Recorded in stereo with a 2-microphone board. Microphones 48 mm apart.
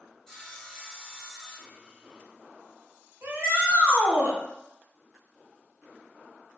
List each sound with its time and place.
0.3 s sawing: 5° left (ahead or behind), 1.4 m
3.2 s a shout: 55° right (ahead or behind), 1.7 m